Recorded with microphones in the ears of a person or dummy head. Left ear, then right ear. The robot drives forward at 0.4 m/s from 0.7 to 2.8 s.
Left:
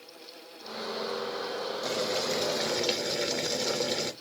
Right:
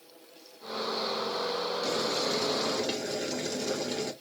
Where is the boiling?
15° left (ahead or behind), 1.2 m; by 4.1 s 25° left (ahead or behind), 0.8 m.